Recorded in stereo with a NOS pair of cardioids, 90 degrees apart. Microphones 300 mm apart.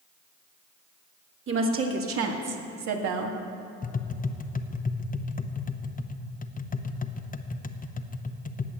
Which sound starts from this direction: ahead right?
A woman speaking, at 1.5 s.